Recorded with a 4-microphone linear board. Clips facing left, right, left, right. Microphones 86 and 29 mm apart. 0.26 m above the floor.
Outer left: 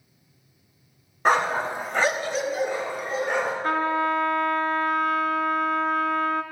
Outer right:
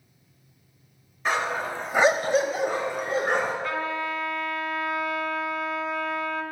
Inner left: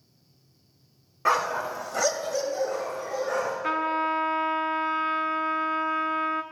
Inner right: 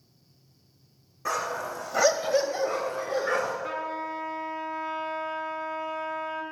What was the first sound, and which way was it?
A dog barking, 55° left (ahead or behind).